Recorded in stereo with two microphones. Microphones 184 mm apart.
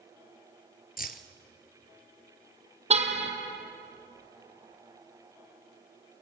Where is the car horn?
35° right (ahead or behind), 2 m.